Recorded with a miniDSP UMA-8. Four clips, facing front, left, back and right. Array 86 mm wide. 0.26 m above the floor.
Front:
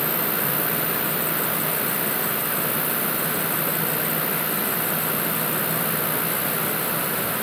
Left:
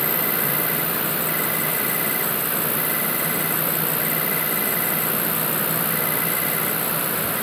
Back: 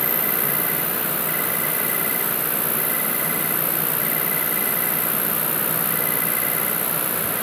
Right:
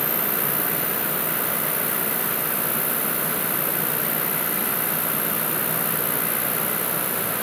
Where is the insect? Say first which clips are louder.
Left 2 dB, front 1 dB; 130° left, 1.6 m.